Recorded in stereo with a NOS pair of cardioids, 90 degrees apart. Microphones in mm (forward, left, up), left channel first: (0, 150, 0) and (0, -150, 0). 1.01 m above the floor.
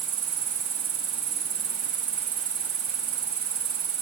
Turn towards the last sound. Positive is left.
turn(degrees=-65)